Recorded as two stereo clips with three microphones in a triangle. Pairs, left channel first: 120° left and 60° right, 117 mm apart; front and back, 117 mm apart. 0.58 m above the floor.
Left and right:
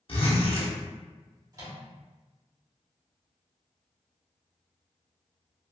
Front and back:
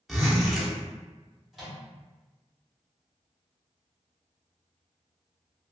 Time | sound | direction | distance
0.1 | a zipper | 90° left | 0.7 m
1.5 | a microwave | 90° right | 0.9 m